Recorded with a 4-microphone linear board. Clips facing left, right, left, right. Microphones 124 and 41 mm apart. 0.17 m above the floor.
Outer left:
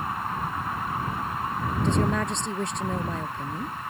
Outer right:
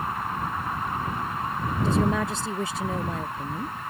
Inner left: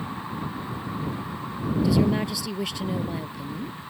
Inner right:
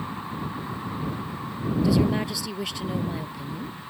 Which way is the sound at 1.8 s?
Centre (ahead or behind).